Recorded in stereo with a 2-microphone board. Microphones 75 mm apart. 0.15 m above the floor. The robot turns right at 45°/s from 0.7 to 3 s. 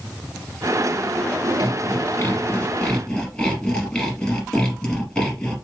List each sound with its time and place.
1.6 s sawing: 105° left, 2 m; by 5.5 s 170° left, 2 m